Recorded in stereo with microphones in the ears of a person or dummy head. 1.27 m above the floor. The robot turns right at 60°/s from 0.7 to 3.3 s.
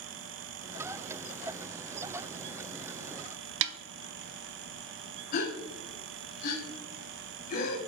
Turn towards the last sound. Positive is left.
turn(degrees=45)  # may be behind; listen again after turning